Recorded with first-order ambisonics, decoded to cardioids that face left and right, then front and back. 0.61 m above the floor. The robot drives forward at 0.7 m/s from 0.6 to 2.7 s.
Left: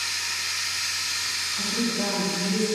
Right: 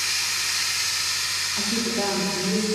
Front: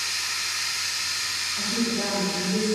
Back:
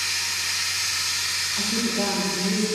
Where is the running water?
115° right, 0.9 m; by 2.8 s 160° right, 2.0 m.